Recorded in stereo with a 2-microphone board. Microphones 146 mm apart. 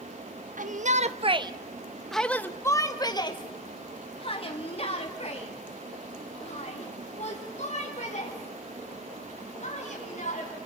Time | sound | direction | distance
0.6 | a shout | 65° right (ahead or behind) | 1.2 m